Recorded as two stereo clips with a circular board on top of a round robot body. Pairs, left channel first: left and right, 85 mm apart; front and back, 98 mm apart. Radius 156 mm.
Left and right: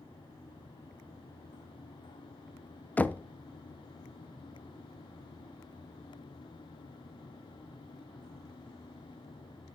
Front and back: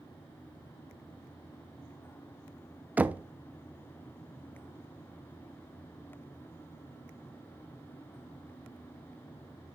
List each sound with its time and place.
3.0 s knocking: 130° left, 0.6 m